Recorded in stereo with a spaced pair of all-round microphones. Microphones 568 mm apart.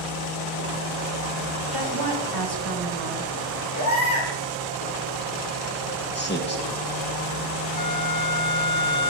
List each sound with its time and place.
1.7 s a woman speaking: 40° right (ahead or behind), 1.9 m
3.8 s a baby crying: 35° left (ahead or behind), 4.5 m
6.2 s a man speaking: 20° left (ahead or behind), 1.2 m
7.8 s a flute: 45° right (ahead or behind), 1.3 m